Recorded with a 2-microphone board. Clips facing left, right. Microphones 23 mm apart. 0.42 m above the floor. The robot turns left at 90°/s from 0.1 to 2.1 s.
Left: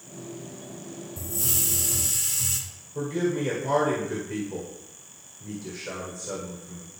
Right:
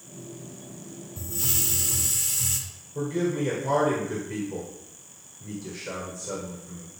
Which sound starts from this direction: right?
A hiss, at 1.2 s.